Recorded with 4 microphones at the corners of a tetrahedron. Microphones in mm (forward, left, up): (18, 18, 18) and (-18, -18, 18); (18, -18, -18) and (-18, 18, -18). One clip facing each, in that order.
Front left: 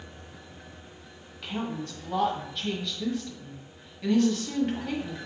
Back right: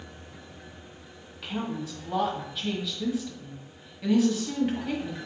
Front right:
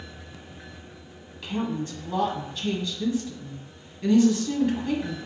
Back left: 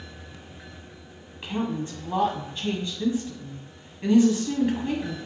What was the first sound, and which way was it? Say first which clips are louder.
A woman speaking: even, even; 145° left.